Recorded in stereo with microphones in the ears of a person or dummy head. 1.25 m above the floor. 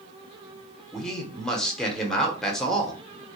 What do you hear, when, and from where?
0.9 s a man speaking: 5° left (ahead or behind), 0.7 m